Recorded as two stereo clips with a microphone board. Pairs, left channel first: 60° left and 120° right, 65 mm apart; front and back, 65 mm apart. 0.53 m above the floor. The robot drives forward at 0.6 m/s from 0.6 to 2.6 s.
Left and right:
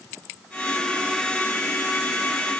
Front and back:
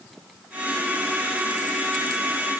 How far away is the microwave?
I don't hear a microwave.